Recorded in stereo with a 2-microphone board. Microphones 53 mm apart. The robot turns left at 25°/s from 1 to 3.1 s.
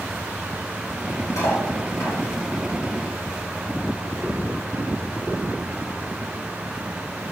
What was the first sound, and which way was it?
Cutlery clinking, 80° left.